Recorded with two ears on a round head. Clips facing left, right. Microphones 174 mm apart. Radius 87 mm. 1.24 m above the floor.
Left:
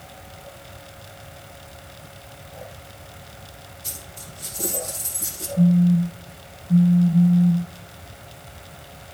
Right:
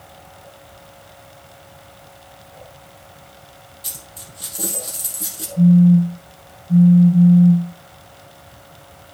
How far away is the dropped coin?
About 3.5 m.